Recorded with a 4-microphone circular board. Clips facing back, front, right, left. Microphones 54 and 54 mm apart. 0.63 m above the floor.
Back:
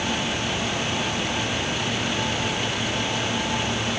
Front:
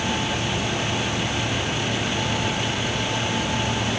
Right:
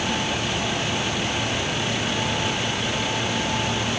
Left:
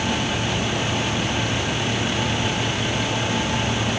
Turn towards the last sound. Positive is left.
No sound to turn to.